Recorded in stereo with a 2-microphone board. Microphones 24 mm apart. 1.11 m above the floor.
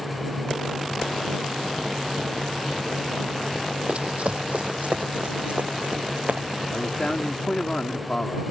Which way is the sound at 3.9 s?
55° right (ahead or behind).